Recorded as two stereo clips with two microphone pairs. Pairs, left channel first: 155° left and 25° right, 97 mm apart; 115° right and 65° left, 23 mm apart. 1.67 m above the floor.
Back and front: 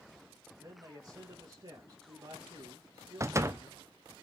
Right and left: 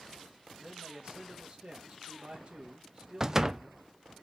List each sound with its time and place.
0.6 s a man speaking: 15° left, 2 m
3.2 s a door slam: 10° left, 0.5 m